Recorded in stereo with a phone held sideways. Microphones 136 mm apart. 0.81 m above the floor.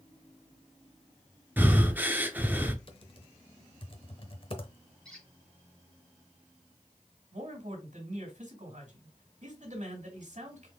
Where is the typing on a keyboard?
40° left (ahead or behind), 0.8 m.